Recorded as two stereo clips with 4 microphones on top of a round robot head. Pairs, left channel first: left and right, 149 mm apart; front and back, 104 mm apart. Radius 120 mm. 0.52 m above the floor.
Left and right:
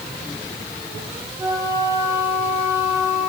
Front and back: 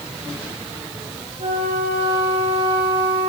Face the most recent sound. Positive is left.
turn(degrees=-160)